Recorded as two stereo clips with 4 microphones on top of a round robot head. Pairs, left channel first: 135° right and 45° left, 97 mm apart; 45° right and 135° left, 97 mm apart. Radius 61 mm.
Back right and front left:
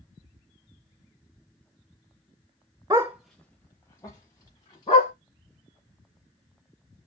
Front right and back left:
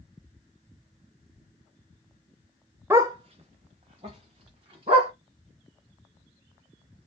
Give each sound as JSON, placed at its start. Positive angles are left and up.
{"t": 2.9, "sound": "a dog barking", "azimuth_deg": 85, "distance_m": 0.5}